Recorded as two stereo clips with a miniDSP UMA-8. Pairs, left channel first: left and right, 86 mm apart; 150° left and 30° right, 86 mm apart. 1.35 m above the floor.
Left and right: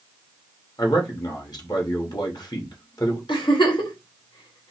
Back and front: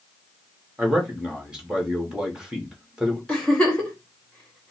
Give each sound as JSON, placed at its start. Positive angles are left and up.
{"t": 0.8, "sound": "a man speaking", "azimuth_deg": 50, "distance_m": 2.0}
{"t": 3.3, "sound": "a giggle", "azimuth_deg": 70, "distance_m": 2.0}